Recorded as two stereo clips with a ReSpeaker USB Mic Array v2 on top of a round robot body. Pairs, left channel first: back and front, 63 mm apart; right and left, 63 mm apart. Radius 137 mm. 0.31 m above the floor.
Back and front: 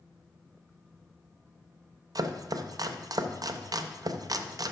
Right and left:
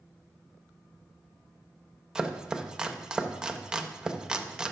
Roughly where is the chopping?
Ahead.